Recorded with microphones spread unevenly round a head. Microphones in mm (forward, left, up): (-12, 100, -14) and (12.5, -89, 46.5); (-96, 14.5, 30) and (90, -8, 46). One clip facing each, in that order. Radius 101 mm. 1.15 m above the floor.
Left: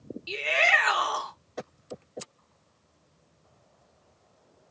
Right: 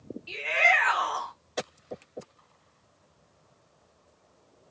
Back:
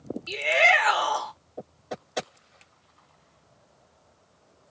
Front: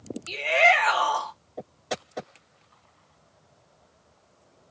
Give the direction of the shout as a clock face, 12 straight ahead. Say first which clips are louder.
Even, front 2 dB; 9 o'clock.